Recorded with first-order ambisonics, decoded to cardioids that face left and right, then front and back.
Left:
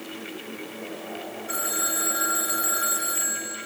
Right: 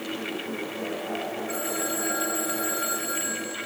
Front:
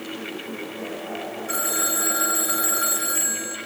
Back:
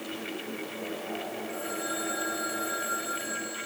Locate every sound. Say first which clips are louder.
1.5 s a phone ringing: left 6 dB, front 11 dB; 20° left, 3 m